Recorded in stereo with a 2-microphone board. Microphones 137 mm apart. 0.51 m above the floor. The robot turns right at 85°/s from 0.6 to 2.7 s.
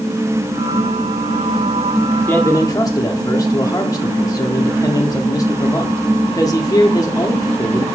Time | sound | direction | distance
2.3 | a man speaking | 15° left (ahead or behind) | 0.8 m